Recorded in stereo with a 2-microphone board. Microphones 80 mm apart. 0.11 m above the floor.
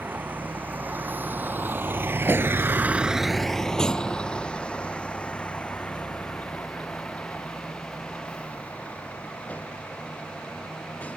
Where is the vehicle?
20° right (ahead or behind); by 11.2 s 20° left (ahead or behind).